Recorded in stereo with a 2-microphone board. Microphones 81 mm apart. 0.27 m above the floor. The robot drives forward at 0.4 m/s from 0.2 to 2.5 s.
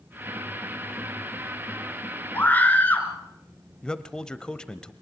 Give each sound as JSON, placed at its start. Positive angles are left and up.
{"t": 2.3, "sound": "a scream", "side_deg": 20, "distance_m": 4.5}
{"t": 3.8, "sound": "a man speaking", "side_deg": 10, "distance_m": 1.0}